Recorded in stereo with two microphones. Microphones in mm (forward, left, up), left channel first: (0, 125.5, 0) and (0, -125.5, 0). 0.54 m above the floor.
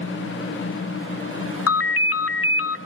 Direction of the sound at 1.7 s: 65° left (ahead or behind).